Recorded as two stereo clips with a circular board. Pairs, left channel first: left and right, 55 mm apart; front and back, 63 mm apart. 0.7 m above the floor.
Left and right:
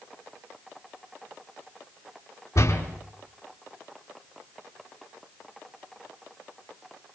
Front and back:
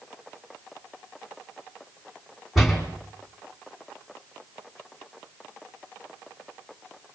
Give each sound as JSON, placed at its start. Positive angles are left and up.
{"t": 2.5, "sound": "a door slam", "azimuth_deg": 90, "distance_m": 4.0}